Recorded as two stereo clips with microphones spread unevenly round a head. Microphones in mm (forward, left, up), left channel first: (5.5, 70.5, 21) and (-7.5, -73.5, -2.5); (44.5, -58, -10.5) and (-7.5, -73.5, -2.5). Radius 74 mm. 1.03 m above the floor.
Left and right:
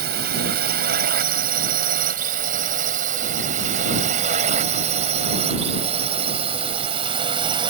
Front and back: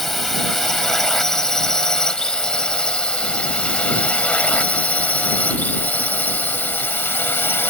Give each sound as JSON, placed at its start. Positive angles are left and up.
{"t": 0.0, "sound": "a drone", "azimuth_deg": -70}